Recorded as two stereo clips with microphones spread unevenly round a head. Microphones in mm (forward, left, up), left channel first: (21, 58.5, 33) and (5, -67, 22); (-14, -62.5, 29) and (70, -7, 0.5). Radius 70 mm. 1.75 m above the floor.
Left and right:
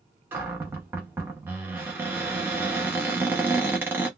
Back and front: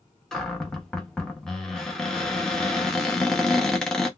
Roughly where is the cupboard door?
Behind.